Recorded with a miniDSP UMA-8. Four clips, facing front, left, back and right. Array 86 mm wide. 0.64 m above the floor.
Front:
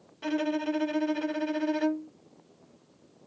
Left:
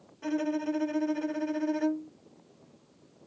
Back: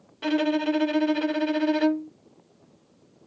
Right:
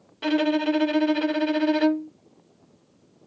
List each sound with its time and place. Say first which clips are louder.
0.2 s a violin: right 8 dB, back 5 dB; 115° right